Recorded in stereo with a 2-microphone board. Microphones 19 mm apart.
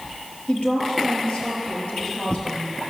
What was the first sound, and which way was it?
A woman speaking, 75° left (ahead or behind).